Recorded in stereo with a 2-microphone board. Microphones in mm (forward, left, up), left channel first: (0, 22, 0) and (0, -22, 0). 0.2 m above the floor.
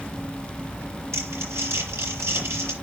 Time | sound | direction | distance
1.1 | crumpling | 70° right (ahead or behind) | 5.5 m